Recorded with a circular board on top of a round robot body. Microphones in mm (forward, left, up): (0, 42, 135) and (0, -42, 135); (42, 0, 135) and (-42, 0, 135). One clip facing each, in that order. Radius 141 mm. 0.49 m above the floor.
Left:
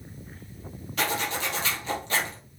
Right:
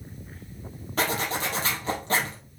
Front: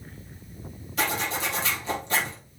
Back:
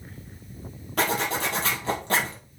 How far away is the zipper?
About 3 m.